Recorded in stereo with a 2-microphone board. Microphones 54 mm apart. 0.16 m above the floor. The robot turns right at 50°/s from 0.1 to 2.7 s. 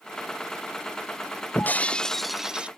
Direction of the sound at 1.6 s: 140° left.